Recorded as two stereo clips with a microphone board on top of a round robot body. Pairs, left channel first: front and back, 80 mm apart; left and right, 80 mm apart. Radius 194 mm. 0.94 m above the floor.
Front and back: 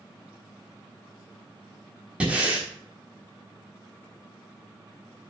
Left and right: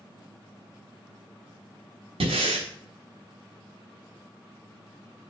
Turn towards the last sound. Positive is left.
turn(degrees=-100)